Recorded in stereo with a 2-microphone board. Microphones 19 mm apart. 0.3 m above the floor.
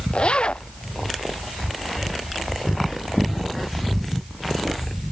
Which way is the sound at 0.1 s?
70° left (ahead or behind).